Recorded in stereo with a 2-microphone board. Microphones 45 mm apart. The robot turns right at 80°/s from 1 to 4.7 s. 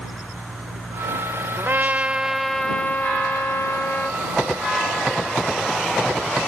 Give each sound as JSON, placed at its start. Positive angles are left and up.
{"t": 1.6, "sound": "a trumpet", "azimuth_deg": -70}